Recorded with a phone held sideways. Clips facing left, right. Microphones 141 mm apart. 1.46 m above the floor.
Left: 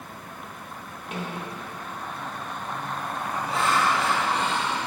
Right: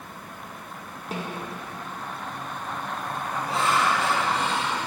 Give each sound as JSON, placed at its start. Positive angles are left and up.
{"t": 1.1, "sound": "a snare drum", "side_deg": -35, "distance_m": 1.1}
{"t": 3.5, "sound": "laughter", "side_deg": -35, "distance_m": 2.5}